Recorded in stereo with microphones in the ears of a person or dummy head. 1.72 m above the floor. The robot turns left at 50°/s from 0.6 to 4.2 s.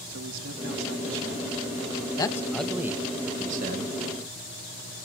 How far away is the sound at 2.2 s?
About 1.5 m.